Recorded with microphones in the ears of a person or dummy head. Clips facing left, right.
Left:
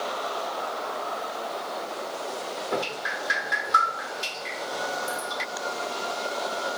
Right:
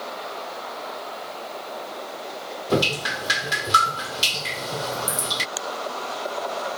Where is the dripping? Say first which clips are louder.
Right 9 dB; 45° right (ahead or behind).